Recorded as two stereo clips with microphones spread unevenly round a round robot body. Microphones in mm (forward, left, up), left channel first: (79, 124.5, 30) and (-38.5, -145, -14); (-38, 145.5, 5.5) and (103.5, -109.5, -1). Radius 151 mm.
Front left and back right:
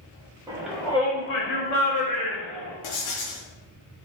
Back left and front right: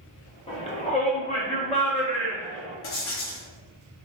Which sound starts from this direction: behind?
A shout, at 0.5 s.